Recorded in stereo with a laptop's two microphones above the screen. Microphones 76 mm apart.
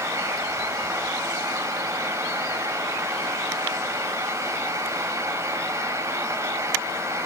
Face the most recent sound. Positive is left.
turn(degrees=-40)  # may be behind; listen again after turning